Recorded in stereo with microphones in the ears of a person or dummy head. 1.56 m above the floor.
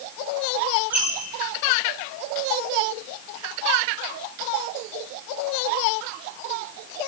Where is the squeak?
10° right (ahead or behind), 1.2 m.